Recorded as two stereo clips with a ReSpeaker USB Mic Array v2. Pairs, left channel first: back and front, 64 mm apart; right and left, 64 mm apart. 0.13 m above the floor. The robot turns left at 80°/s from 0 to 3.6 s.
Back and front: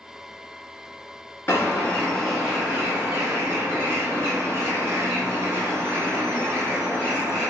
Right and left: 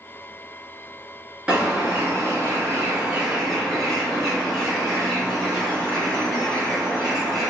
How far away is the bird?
About 1.1 m.